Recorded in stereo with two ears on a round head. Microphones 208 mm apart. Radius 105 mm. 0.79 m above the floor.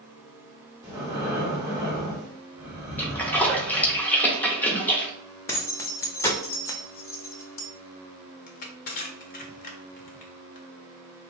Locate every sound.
0.8 s breathing: 15° right (ahead or behind), 1.2 m
3.0 s a splash: 5° left (ahead or behind), 0.5 m
5.5 s keys jangling: 10° left (ahead or behind), 0.5 m
8.5 s crushing: 35° left (ahead or behind), 0.5 m